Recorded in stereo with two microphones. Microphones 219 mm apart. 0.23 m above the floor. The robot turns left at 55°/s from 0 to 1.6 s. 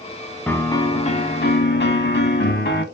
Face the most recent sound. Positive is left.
turn(degrees=110)